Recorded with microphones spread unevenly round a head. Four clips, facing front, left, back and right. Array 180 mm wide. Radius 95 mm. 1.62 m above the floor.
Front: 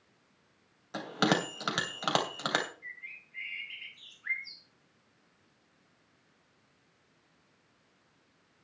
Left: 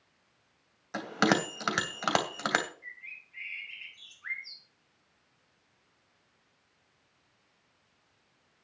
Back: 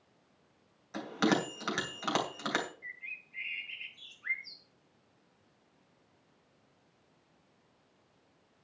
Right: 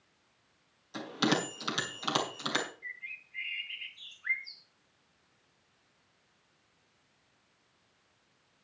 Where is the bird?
140° left, 2.5 m.